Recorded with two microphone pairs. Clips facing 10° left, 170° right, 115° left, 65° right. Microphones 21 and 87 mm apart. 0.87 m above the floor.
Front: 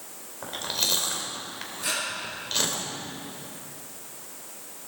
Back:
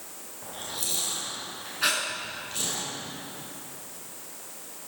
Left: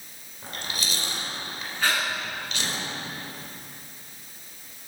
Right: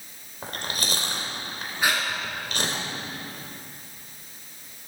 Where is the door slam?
I don't hear a door slam.